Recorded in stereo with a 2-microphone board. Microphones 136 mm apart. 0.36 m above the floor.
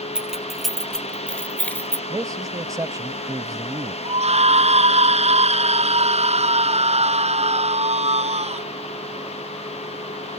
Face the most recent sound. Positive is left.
turn(degrees=-50)  # may be behind; listen again after turning